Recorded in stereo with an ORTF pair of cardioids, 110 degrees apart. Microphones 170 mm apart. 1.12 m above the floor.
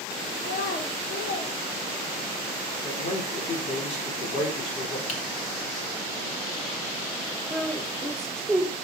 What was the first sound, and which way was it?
A child speaking, 55° left.